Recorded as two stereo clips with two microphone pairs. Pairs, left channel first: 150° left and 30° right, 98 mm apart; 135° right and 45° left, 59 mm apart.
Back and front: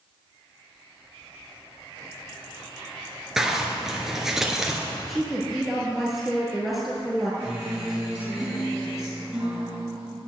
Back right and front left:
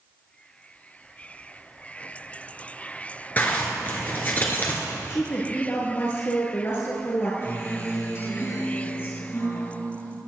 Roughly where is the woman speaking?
Behind right.